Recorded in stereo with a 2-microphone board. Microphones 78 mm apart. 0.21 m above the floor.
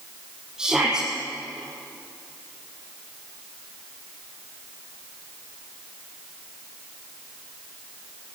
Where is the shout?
10° right (ahead or behind), 6.5 m.